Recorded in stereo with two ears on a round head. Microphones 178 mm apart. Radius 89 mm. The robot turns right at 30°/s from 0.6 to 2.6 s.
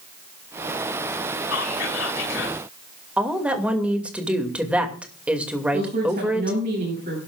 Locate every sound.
1.5 s whispering: 90° left, 3.5 m; by 2.6 s 120° left, 3.5 m
3.2 s a woman speaking: 5° right (ahead or behind), 2.5 m
5.7 s a woman speaking: 40° right (ahead or behind), 8 m